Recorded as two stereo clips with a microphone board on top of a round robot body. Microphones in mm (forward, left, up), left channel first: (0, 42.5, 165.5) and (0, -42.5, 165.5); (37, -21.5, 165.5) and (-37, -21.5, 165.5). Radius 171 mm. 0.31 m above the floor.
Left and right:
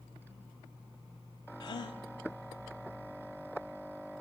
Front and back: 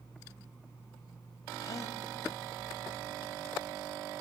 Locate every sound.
1.6 s a gasp: 45° left, 0.6 m